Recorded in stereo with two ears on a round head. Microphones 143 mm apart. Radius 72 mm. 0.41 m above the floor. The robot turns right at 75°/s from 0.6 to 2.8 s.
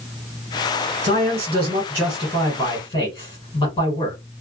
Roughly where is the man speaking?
Right.